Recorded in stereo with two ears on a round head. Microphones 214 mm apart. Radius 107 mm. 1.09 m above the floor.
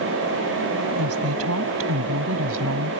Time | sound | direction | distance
1.0 | a woman speaking | 65° right (ahead or behind) | ?